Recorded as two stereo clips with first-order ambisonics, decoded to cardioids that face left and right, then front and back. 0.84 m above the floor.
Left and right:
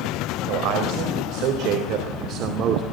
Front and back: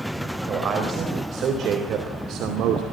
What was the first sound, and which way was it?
A man speaking, 120° right.